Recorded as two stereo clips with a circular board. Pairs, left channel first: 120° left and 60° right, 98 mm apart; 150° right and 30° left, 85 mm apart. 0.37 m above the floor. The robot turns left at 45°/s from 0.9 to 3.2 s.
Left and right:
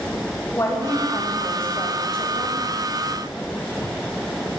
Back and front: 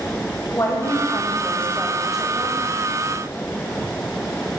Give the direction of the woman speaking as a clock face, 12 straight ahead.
6 o'clock.